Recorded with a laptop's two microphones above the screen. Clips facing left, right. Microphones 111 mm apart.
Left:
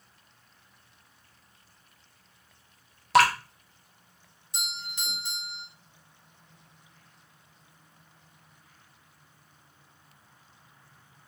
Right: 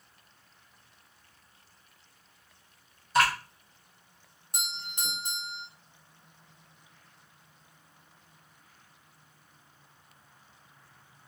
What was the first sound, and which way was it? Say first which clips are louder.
Dripping: left 5 dB; 80° left.